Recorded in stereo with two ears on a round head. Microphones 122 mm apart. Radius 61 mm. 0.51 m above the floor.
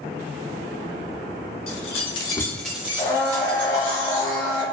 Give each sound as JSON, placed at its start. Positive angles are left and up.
{"t": 1.7, "sound": "keys jangling", "side_deg": 50, "distance_m": 0.7}
{"t": 3.0, "sound": "a blender", "side_deg": 25, "distance_m": 1.3}